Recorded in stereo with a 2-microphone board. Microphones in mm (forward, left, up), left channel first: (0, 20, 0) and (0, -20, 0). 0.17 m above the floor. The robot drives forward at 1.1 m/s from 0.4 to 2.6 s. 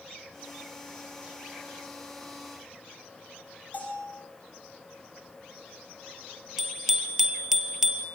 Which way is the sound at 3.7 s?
35° left (ahead or behind).